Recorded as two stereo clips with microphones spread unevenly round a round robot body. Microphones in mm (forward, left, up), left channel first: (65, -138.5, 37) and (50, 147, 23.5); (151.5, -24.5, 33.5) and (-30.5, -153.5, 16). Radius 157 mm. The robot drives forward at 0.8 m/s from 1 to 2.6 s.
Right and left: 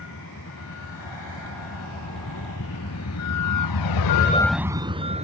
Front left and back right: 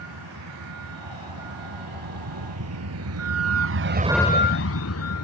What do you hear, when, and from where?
0.0 s a vehicle: 140° right; by 5.2 s 25° left